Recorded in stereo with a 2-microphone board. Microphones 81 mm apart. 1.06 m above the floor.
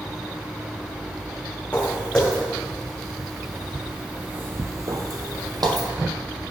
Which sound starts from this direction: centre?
Footsteps, at 1.7 s.